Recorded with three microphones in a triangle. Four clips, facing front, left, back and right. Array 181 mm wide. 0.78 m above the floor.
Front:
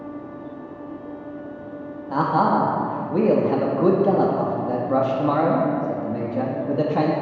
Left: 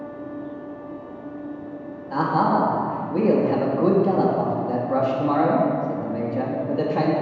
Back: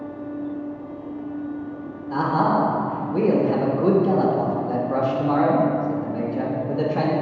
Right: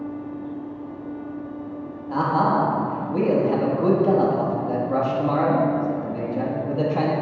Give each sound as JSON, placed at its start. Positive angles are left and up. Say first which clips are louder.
{"t": 2.1, "sound": "a man speaking", "louder": "even, front 1 dB", "azimuth_deg": 5, "distance_m": 1.2}